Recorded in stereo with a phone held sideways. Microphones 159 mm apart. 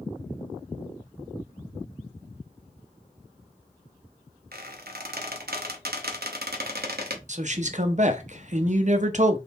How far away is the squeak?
About 0.8 m.